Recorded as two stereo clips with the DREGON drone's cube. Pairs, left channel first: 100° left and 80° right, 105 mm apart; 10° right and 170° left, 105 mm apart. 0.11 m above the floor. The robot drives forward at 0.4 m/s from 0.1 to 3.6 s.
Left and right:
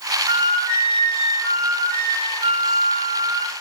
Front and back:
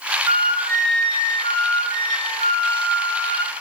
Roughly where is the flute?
Behind.